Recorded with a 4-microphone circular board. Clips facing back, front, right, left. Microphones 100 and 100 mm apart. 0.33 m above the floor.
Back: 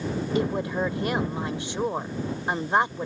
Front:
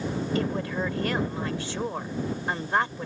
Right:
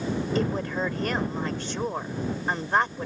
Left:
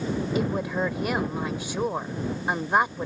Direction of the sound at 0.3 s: 150° left.